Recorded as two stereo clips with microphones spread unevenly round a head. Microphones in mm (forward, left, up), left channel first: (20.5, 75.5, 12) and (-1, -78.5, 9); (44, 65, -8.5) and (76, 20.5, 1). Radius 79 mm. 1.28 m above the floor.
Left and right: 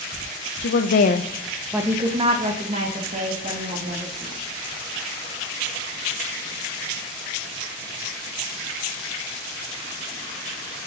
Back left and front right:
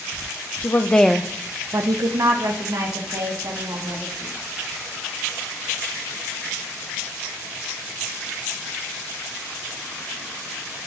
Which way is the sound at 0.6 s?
70° left.